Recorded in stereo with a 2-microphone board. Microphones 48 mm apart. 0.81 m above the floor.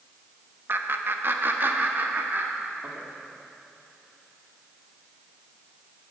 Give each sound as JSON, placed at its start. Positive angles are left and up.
{"t": 0.7, "sound": "laughter", "side_deg": -50, "distance_m": 0.9}